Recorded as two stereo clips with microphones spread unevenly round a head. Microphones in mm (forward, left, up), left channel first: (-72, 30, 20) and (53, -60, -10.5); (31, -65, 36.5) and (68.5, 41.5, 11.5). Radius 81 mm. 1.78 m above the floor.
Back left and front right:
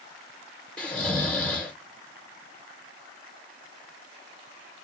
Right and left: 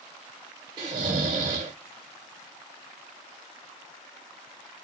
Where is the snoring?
105° left, 0.9 m.